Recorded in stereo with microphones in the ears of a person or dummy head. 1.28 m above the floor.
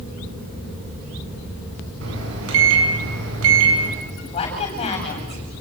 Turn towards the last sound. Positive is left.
turn(degrees=35)  # may be behind; listen again after turning